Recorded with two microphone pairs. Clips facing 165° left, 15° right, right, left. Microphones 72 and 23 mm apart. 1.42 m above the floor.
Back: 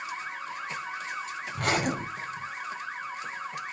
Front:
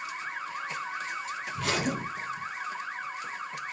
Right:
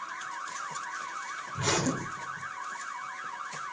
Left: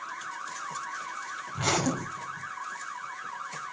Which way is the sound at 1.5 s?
140° left.